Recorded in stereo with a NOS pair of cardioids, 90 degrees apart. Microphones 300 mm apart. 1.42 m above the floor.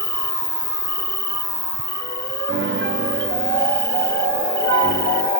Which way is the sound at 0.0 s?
10° left.